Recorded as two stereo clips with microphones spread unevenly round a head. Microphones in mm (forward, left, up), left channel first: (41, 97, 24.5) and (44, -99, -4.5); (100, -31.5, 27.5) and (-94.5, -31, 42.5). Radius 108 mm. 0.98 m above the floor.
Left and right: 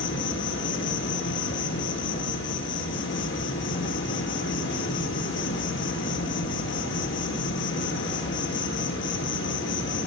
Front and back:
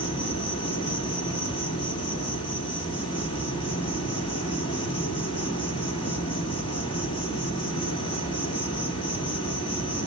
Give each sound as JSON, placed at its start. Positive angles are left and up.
{"t": 0.0, "sound": "an insect", "azimuth_deg": 65, "distance_m": 5.5}